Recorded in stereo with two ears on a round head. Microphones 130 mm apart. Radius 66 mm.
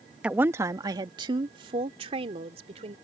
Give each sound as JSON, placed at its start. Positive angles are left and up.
{"t": 0.2, "sound": "a woman speaking", "side_deg": -10}